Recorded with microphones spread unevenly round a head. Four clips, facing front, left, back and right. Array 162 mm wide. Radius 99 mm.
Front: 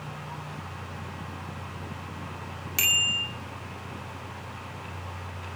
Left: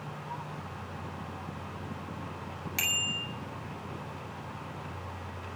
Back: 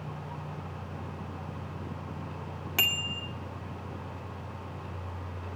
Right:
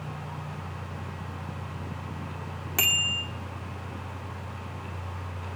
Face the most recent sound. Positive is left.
turn(degrees=-100)